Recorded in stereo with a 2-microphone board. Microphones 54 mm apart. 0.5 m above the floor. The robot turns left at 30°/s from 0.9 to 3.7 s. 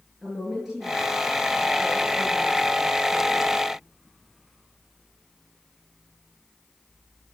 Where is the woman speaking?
15° right, 9 m; by 3.6 s 95° right, 9 m.